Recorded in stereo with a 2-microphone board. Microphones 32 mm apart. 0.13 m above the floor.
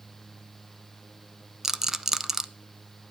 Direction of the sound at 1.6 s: 15° right (ahead or behind).